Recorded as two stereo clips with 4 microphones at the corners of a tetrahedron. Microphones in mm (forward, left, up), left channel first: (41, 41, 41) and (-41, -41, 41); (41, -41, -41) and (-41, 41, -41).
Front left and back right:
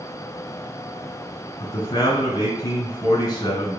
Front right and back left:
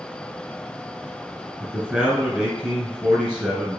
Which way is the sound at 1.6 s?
60° left.